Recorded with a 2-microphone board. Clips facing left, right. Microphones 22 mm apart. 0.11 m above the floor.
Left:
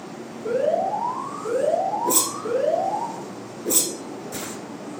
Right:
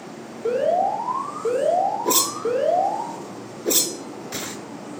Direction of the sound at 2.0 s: 40° right (ahead or behind).